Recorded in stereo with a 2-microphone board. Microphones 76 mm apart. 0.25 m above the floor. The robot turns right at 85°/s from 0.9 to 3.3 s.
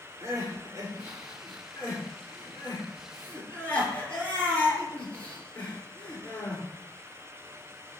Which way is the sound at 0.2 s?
45° right (ahead or behind).